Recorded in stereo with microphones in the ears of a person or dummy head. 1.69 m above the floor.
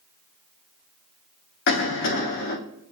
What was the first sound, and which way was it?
A cough, 65° left (ahead or behind).